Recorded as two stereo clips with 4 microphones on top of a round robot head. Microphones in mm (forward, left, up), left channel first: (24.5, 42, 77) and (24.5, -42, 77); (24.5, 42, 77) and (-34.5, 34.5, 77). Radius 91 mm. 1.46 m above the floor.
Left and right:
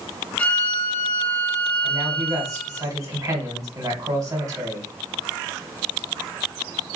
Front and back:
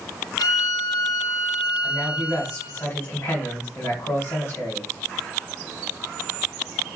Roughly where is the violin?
Ahead.